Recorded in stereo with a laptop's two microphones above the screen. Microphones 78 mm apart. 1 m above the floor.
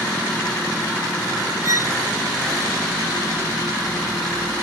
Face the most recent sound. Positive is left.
turn(degrees=-45)  # may be behind; listen again after turning